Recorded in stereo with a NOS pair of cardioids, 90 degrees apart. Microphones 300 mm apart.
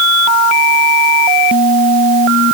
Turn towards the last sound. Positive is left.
No sound to turn to.